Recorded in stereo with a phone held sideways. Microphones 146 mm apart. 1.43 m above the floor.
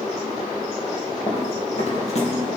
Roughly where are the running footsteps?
Left.